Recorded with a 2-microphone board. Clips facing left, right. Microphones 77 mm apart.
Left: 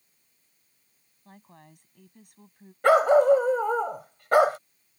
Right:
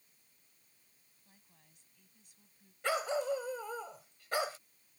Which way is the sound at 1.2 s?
65° left (ahead or behind).